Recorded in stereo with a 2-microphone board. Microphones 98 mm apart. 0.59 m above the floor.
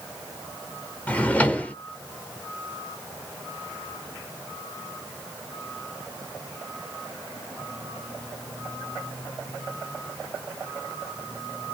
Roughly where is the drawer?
Centre.